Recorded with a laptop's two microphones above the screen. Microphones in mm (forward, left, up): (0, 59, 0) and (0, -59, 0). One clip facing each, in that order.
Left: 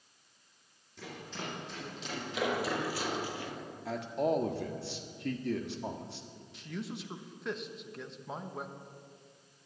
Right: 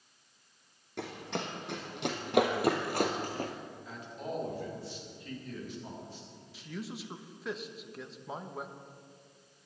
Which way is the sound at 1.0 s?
70° right (ahead or behind).